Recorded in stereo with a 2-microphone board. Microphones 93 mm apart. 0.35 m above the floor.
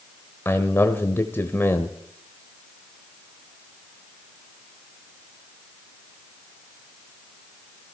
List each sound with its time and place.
0.5 s a man speaking: 25° left (ahead or behind), 1.1 m